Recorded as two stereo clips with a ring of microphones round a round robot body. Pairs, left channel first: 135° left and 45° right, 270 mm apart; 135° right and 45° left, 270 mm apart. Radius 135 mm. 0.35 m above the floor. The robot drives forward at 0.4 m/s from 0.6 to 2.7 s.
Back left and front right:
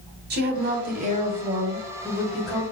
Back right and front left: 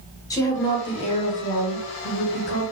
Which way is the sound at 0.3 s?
65° right.